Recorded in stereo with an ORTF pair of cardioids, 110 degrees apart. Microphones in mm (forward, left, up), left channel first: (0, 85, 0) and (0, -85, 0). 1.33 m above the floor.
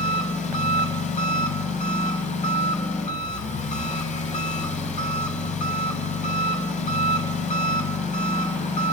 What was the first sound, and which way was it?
An engine running, 45° left.